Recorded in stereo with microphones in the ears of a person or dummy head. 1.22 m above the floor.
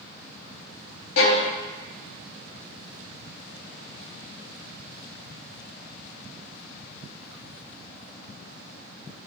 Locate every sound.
1.2 s a violin: 75° left (ahead or behind), 0.9 m